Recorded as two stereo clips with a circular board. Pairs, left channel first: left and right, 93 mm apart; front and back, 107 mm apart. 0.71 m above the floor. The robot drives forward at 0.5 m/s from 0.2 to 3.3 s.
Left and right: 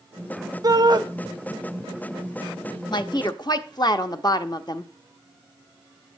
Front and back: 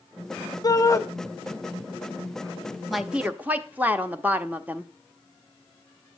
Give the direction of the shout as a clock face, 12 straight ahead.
2 o'clock.